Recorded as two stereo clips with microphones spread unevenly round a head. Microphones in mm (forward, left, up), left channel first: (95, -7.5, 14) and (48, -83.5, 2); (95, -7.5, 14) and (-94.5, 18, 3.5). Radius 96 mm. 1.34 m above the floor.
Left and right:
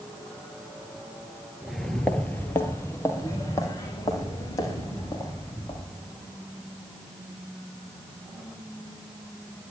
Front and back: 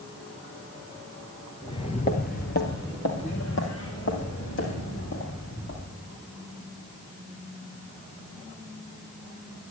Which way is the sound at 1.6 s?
15° right.